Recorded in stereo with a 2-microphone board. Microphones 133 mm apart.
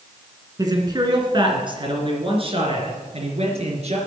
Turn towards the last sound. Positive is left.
turn(degrees=-55)  # may be behind; listen again after turning